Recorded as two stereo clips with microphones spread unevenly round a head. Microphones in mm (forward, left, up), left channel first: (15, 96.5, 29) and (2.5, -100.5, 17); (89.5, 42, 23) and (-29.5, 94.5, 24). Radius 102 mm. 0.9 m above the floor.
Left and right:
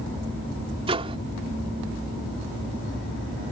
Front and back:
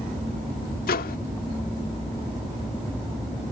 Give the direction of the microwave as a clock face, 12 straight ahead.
1 o'clock.